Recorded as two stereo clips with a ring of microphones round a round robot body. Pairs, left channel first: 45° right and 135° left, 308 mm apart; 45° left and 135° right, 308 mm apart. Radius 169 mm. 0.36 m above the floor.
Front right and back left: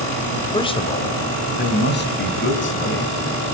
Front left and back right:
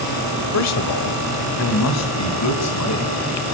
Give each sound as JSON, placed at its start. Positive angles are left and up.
{"t": 0.5, "sound": "a man speaking", "azimuth_deg": 30, "distance_m": 2.0}